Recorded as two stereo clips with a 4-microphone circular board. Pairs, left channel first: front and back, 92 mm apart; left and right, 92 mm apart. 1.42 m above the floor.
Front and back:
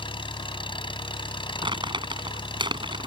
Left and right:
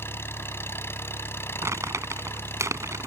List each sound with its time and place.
0.0 s an engine running: 25° left
1.6 s crumpling: 150° right